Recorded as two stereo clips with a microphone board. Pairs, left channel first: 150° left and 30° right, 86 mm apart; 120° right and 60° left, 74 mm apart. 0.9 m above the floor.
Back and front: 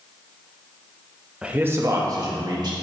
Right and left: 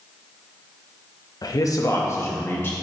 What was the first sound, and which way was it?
A man speaking, 110° right.